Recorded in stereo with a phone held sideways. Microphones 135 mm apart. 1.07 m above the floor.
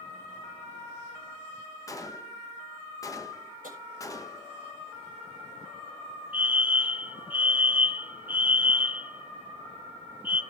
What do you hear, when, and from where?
1.9 s a gunshot: 25° left (ahead or behind), 1.2 m
3.6 s tapping: 85° right, 6.5 m
6.3 s a fire alarm: 15° right (ahead or behind), 1.4 m